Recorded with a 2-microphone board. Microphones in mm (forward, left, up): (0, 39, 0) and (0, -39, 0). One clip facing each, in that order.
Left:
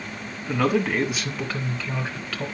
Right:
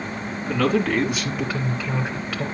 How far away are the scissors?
I don't hear scissors.